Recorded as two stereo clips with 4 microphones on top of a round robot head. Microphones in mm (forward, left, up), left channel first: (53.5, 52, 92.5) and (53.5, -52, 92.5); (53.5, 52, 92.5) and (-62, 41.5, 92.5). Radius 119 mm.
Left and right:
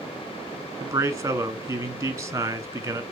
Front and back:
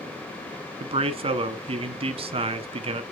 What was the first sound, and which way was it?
A man speaking, 150° right.